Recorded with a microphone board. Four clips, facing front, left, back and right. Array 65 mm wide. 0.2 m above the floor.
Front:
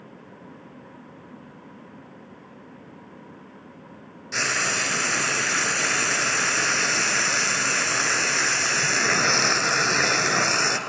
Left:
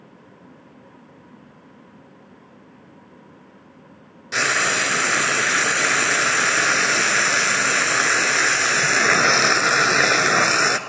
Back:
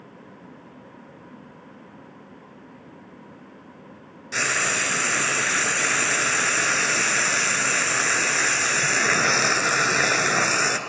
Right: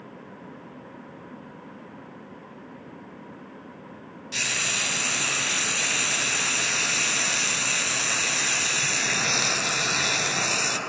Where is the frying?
100° left, 0.6 m.